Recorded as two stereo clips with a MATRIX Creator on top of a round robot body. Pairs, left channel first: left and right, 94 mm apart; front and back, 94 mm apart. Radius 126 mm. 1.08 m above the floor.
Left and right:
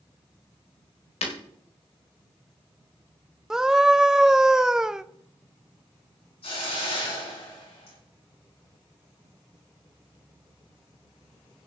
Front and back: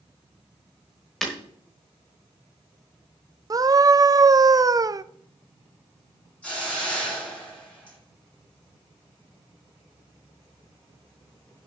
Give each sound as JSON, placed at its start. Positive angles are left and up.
{"t": 1.2, "sound": "breaking glass", "azimuth_deg": 85, "distance_m": 1.2}
{"t": 3.5, "sound": "a scream", "azimuth_deg": -170, "distance_m": 0.6}
{"t": 6.4, "sound": "a hiss", "azimuth_deg": 80, "distance_m": 8.0}